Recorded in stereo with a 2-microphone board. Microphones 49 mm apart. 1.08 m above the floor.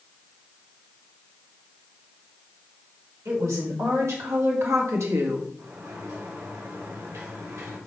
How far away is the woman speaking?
About 4.5 m.